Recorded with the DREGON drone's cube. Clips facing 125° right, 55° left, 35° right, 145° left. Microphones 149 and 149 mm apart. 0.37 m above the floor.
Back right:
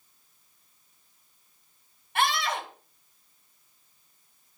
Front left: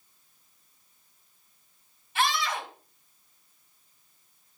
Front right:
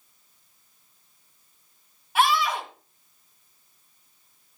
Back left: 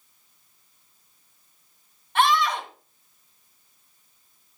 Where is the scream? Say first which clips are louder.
Back right 1 dB, back left 1 dB; 115° right, 2 m.